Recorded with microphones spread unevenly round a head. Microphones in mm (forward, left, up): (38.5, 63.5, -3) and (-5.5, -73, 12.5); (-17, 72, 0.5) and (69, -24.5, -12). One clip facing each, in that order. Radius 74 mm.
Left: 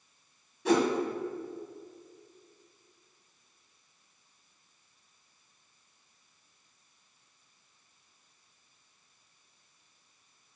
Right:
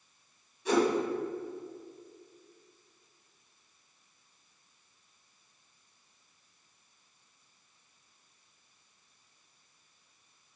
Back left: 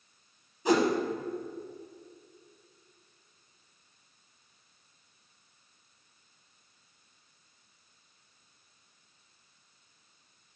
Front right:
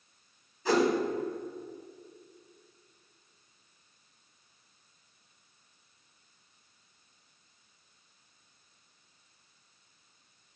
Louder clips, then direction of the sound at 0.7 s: Left 1 dB, back left 1 dB; 70° left.